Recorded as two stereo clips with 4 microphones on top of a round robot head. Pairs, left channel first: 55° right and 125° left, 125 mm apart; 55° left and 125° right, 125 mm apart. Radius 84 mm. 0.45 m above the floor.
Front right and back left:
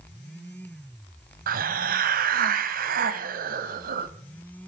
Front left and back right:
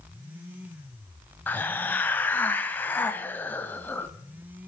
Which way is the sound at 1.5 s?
130° left.